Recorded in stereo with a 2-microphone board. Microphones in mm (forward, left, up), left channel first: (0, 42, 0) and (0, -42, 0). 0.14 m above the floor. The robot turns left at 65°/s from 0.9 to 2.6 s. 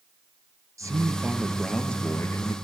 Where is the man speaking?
130° right, 2.5 m; by 2.5 s 125° left, 2.5 m.